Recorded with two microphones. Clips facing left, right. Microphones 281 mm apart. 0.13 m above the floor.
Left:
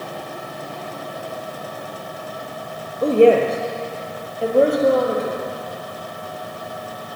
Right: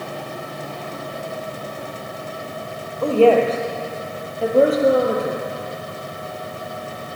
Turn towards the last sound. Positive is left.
turn(degrees=-15)  # may be behind; listen again after turning